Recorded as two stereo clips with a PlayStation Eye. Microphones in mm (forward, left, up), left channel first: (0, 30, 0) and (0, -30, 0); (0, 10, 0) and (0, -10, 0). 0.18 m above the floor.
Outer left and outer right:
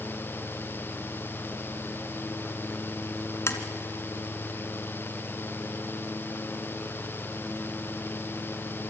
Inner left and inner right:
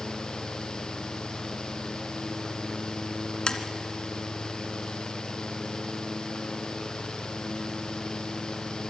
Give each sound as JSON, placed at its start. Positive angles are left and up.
{"t": 3.5, "sound": "tapping", "side_deg": 45, "distance_m": 2.0}